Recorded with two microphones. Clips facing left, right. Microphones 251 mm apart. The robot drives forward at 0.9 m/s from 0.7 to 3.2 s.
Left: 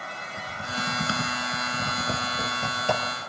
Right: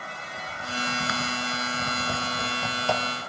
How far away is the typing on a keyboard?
About 1.7 m.